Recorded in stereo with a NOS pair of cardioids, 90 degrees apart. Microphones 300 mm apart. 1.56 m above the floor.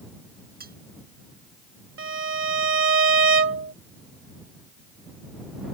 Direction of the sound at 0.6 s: 30° right.